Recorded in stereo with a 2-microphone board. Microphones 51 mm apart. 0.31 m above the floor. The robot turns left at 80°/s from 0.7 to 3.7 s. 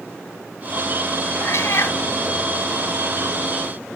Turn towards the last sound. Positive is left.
turn(degrees=-90)